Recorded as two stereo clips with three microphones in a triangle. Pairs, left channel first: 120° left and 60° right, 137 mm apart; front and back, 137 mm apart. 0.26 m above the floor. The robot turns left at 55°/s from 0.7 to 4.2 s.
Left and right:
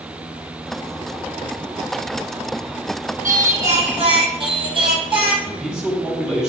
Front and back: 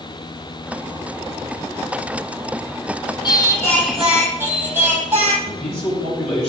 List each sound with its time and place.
3.2 s singing: 55° right, 1.4 m; by 5.3 s 105° right, 1.4 m
5.4 s a man speaking: 25° left, 1.9 m